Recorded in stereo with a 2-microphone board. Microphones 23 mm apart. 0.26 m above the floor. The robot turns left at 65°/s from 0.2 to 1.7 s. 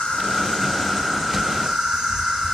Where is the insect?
60° left, 3.5 m; by 2.5 s 35° right, 3.5 m.